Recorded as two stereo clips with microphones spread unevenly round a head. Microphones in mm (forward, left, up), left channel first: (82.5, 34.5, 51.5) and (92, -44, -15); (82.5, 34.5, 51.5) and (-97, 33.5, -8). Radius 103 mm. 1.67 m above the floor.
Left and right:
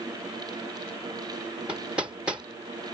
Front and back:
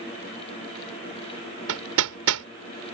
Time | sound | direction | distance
1.7 | hammering | 165° right | ?